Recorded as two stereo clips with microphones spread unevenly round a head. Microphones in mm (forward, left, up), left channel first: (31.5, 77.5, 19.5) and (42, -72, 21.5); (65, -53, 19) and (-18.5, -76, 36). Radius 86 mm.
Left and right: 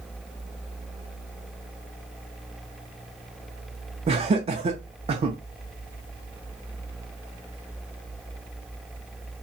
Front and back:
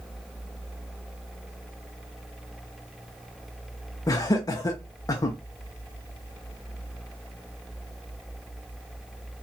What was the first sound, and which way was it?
Laughter, 35° right.